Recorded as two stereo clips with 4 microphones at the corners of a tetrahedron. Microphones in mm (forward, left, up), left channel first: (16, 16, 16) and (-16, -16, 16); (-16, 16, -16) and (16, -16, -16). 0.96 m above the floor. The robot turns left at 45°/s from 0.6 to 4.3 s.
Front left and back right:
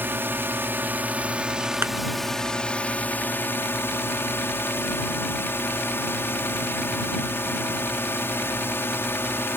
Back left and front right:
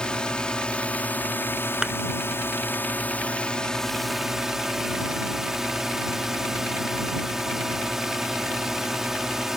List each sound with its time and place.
0.0 s a drone: 155° right; by 9.6 s 35° left
1.8 s a thud: 115° right; by 1.9 s 120° right